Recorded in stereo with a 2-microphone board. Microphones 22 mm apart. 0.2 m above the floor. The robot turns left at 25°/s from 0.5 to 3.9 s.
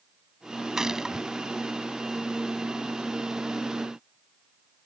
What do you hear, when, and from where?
0.8 s a gunshot: 25° right (ahead or behind)